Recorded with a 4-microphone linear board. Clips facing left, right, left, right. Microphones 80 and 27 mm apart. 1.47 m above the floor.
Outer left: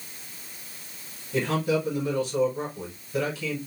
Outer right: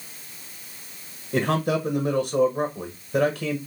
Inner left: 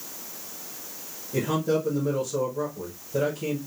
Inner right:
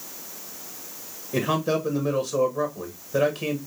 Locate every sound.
1.3 s a man speaking: 45° right (ahead or behind), 1.1 m